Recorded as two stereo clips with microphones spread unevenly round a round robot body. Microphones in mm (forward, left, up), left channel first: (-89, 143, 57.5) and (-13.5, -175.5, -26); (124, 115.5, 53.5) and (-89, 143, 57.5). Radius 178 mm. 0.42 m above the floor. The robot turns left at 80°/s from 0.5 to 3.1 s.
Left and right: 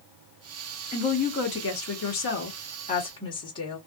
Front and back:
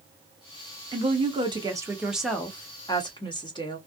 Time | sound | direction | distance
0.9 | a woman speaking | 175° right | 1.1 m